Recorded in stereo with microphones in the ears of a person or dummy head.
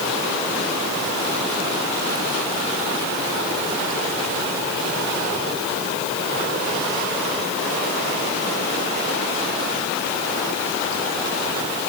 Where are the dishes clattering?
No dishes clattering in this recording.